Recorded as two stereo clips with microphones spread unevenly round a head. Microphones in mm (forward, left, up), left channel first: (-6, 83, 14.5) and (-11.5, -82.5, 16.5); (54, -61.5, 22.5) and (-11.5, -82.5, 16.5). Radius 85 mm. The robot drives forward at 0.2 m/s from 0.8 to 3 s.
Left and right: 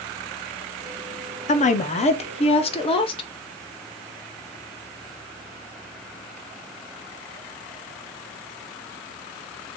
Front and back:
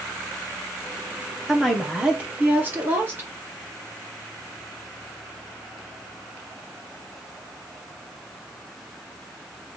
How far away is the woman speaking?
About 0.6 m.